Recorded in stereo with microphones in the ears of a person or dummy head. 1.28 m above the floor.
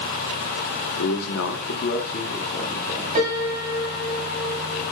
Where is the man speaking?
75° left (ahead or behind), 1.7 m; by 3.0 s 10° left (ahead or behind), 2 m.